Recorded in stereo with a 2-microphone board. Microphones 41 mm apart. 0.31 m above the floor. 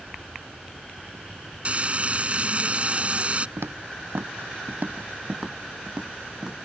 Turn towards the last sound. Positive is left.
turn(degrees=-10)  # may be behind; listen again after turning